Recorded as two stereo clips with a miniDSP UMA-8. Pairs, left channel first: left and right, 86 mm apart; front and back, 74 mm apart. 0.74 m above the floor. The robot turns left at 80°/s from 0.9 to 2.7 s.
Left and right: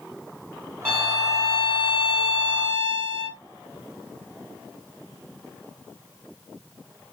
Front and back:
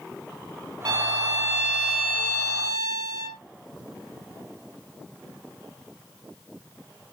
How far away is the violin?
About 1.4 m.